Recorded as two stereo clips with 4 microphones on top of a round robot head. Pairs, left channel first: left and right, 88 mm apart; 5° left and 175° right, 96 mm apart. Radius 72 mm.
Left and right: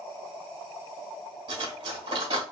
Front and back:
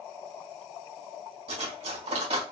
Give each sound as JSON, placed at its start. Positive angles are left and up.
{"t": 1.5, "sound": "cutlery clinking", "azimuth_deg": -140, "distance_m": 1.3}